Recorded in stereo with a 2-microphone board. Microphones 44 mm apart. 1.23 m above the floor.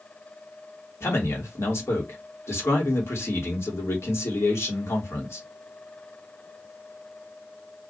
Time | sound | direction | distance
1.0 | a man speaking | 75° left (ahead or behind) | 1.6 m